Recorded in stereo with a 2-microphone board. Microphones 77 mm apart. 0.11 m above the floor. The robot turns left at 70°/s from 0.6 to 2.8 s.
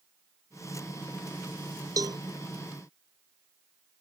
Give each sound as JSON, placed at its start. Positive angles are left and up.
{"t": 2.0, "sound": "a cowbell", "side_deg": -50}